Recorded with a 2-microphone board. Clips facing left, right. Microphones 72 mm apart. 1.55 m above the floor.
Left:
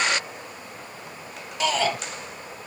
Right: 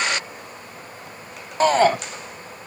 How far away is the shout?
About 0.7 m.